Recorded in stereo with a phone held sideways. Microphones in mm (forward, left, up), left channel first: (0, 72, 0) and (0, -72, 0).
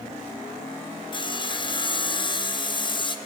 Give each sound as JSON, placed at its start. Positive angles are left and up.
{"t": 1.1, "sound": "sawing", "side_deg": 35, "distance_m": 0.5}